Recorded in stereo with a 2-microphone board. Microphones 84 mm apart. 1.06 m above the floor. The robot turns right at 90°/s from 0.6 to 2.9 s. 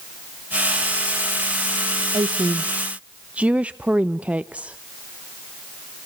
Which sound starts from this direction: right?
A woman speaking, at 2.1 s.